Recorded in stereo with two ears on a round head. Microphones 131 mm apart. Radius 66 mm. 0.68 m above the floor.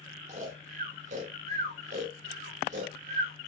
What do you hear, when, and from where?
0.3 s snoring: 50° right (ahead or behind), 1.9 m